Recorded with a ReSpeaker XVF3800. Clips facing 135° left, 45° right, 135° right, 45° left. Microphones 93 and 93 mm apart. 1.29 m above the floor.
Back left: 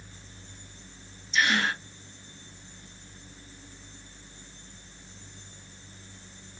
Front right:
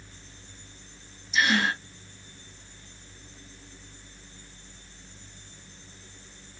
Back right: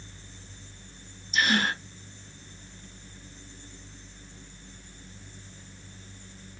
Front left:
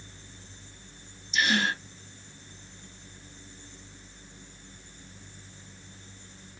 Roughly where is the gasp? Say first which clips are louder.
Front right 1 dB, back right 1 dB; behind right.